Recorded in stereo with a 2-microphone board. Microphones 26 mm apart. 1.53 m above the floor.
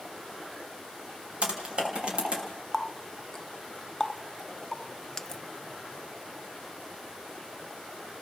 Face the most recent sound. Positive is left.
turn(degrees=20)  # may be behind; listen again after turning